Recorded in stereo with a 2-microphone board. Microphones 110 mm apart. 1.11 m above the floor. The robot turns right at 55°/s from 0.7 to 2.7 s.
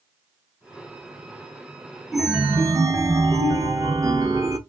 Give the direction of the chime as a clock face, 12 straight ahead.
6 o'clock.